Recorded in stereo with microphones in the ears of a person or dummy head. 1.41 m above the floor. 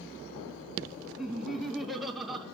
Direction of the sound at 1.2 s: 5° left (ahead or behind).